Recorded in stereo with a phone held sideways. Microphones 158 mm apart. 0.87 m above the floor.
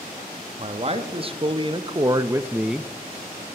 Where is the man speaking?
40° right (ahead or behind), 1.4 m; by 2.9 s 5° left (ahead or behind), 0.5 m.